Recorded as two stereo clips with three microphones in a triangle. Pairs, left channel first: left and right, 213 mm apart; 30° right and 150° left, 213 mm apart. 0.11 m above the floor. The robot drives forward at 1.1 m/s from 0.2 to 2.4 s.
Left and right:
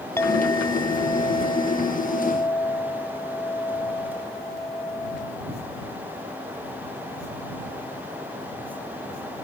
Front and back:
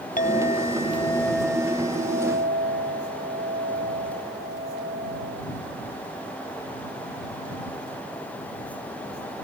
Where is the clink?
15° left; by 5.4 s 160° left.